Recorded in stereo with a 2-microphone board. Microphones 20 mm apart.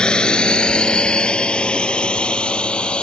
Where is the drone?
45° left (ahead or behind); by 3.0 s 55° left (ahead or behind).